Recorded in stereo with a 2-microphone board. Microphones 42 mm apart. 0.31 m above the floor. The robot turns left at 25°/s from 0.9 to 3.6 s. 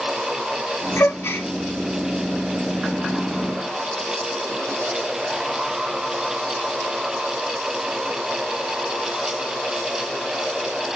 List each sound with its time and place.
1.0 s a gasp: 70° left (ahead or behind), 0.8 m; by 1.5 s 60° left (ahead or behind), 0.8 m